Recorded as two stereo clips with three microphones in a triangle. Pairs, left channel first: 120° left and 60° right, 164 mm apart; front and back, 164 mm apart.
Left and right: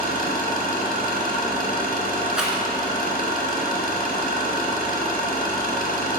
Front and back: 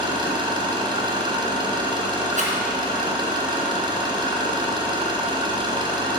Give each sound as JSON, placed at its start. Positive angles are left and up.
{"t": 0.0, "sound": "an engine running", "azimuth_deg": 120, "distance_m": 1.5}
{"t": 2.4, "sound": "a rattle", "azimuth_deg": -145, "distance_m": 1.7}